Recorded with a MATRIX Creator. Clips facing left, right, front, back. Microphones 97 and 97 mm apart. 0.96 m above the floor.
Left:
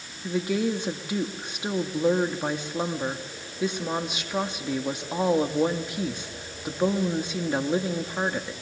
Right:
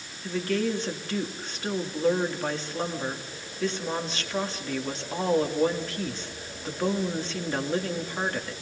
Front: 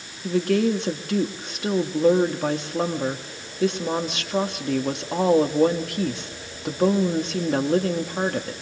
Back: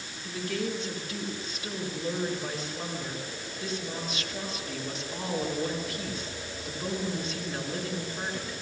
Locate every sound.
0.2 s a woman speaking: 15° left, 2 m